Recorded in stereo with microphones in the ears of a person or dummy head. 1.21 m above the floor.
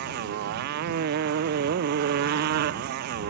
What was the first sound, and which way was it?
A motorcycle, 60° right (ahead or behind).